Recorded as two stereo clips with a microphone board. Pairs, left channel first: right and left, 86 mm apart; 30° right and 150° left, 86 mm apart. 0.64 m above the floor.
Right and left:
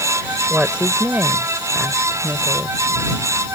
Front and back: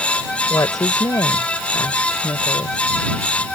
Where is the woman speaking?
15° left.